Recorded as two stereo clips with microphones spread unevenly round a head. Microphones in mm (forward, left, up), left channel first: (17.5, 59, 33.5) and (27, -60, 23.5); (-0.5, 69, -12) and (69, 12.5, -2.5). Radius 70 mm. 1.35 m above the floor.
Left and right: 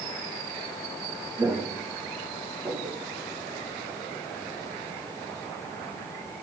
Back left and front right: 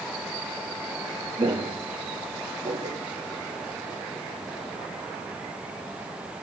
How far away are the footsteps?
About 4 m.